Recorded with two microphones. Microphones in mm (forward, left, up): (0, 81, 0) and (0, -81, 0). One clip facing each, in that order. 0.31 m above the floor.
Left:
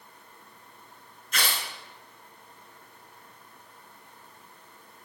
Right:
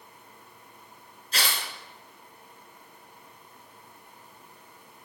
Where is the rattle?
I don't hear a rattle.